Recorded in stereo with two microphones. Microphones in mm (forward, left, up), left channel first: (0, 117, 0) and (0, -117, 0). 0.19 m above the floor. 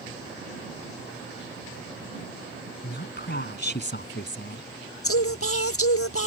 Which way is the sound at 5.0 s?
75° left (ahead or behind).